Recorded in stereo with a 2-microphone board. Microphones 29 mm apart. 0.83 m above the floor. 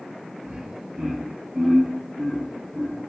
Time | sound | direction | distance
0.4 | laughter | 40° right (ahead or behind) | 0.8 m